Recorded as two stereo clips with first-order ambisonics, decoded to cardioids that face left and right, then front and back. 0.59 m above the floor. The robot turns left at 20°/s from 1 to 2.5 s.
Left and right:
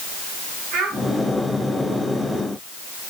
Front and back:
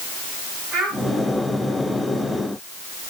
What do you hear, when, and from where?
0.7 s a child speaking: 125° right, 4 m